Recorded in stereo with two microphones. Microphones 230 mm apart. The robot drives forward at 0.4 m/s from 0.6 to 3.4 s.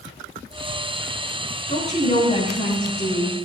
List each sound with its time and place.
1.7 s a woman speaking: 30° left (ahead or behind), 9 m